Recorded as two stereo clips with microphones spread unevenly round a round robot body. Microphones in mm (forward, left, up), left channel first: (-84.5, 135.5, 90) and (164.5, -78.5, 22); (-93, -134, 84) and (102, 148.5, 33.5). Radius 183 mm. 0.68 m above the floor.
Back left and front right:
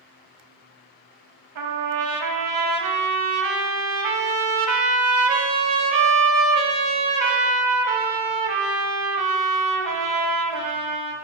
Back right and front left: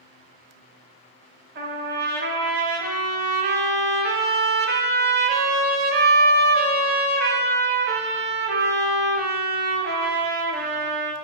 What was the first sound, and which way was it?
A trumpet, 10° right.